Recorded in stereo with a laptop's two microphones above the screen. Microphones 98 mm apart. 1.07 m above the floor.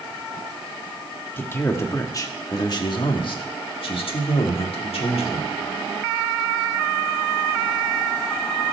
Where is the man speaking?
20° left (ahead or behind), 1.9 m; by 5.5 s 85° left, 2.5 m.